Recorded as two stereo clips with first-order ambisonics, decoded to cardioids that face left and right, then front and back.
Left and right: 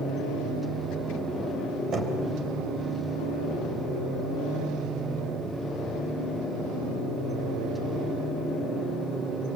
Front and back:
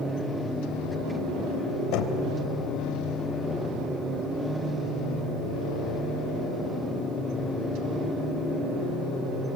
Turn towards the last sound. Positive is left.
turn(degrees=-25)